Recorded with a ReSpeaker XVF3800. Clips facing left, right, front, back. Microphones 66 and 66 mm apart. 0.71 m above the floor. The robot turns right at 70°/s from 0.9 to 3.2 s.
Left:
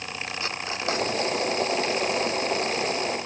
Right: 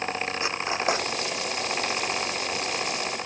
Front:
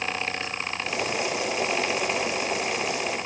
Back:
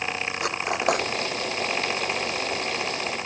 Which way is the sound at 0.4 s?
165° right.